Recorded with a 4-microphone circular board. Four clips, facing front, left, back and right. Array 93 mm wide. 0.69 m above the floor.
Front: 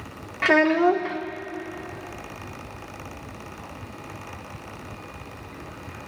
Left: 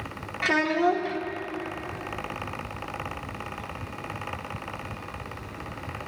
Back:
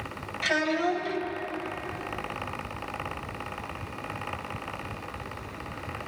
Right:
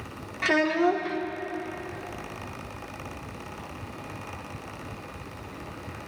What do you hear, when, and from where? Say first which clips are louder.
0.4 s a child speaking: even, front 8 dB; straight ahead, 0.8 m